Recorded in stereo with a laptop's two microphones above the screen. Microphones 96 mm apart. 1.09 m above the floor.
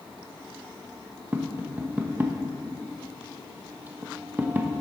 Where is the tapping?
15° right (ahead or behind), 0.7 m.